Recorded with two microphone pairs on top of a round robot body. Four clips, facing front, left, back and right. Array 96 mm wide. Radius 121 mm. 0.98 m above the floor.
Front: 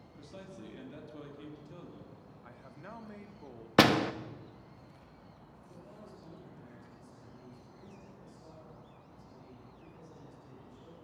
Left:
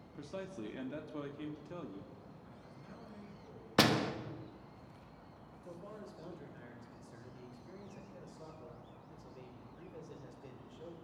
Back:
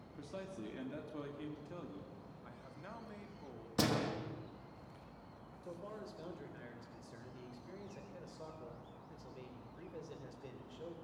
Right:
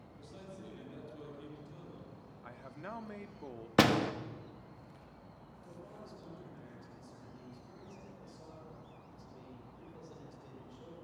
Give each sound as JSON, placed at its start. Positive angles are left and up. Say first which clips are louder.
{"t": 0.1, "sound": "a man speaking", "louder": "left 7 dB, back 2 dB", "azimuth_deg": 100, "distance_m": 2.5}
{"t": 2.4, "sound": "a man speaking", "louder": "right 7 dB, front 4 dB", "azimuth_deg": -80, "distance_m": 2.5}
{"t": 3.8, "sound": "a door slam", "louder": "right 3 dB, front 11 dB", "azimuth_deg": -5, "distance_m": 1.3}
{"t": 5.6, "sound": "a man speaking", "louder": "left 3 dB, back 5 dB", "azimuth_deg": 160, "distance_m": 5.0}